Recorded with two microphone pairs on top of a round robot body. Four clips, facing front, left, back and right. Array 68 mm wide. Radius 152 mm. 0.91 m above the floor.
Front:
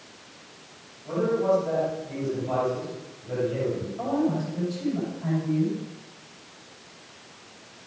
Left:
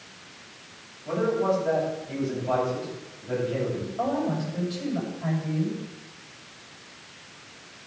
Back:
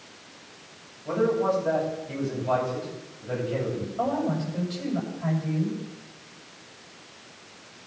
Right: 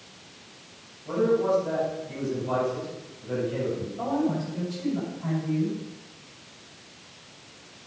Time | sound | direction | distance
1.1 | a man speaking | 175° left | 6.5 m
4.0 | a woman speaking | 165° left | 6.5 m